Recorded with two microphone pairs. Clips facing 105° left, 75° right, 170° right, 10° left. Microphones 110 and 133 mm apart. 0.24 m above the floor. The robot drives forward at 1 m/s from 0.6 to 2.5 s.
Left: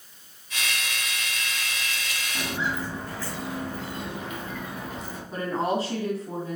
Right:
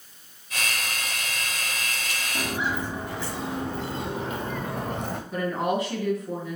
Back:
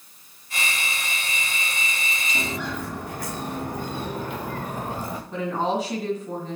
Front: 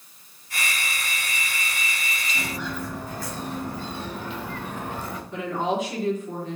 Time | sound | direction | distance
2.4 | footsteps | 150° right | 2.5 m
5.3 | a woman speaking | 150° left | 2 m